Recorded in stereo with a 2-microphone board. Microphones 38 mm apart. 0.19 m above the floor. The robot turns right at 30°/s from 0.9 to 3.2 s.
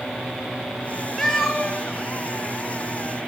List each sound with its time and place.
1.2 s a cat meowing: 5° left (ahead or behind), 1.4 m; by 1.7 s 20° left (ahead or behind), 1.4 m